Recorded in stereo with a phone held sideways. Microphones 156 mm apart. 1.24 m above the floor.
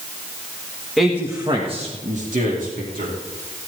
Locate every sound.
1.0 s a man speaking: centre (ahead or behind), 1.5 m; by 3.1 s 65° right (ahead or behind), 3.5 m